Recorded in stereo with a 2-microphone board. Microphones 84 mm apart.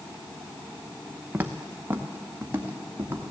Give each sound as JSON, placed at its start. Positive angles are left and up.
{"t": 1.3, "sound": "footsteps", "side_deg": -25, "distance_m": 0.9}